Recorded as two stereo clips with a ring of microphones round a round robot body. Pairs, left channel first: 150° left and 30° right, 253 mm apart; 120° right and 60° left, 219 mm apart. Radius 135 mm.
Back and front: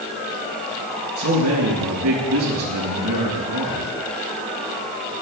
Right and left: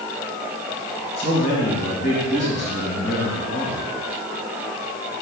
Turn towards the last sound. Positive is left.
turn(degrees=-65)